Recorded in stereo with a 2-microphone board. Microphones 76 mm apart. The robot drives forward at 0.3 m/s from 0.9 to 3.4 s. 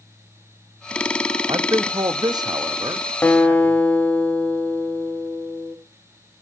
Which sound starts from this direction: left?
A guitar, at 3.2 s.